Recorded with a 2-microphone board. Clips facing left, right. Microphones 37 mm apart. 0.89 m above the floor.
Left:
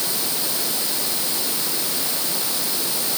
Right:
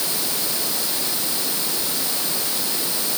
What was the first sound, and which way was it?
Only background noise.